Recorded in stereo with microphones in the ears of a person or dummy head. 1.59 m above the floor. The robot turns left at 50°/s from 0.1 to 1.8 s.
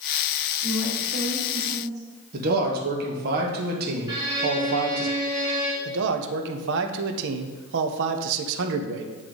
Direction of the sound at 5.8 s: 70° right (ahead or behind).